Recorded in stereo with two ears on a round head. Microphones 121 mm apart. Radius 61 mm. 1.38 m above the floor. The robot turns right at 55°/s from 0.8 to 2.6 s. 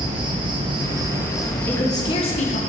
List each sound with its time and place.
0.0 s an insect: 35° right, 1.4 m; by 2.7 s 60° left, 1.4 m
1.7 s a woman speaking: 15° left, 1.2 m; by 2.6 s 65° left, 1.2 m